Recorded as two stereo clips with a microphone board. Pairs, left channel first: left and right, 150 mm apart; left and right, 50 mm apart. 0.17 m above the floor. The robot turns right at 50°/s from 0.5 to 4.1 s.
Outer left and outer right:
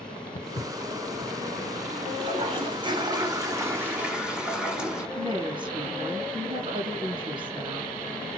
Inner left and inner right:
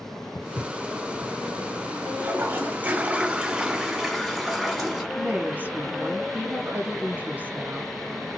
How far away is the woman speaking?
About 1.7 m.